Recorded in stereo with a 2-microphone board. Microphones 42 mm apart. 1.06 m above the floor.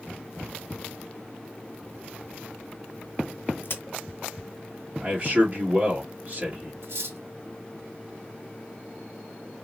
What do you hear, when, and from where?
3.6 s a crack: 60° left (ahead or behind), 1.0 m
5.0 s a man speaking: 35° right (ahead or behind), 1.6 m
6.8 s cutlery clinking: 65° right (ahead or behind), 1.1 m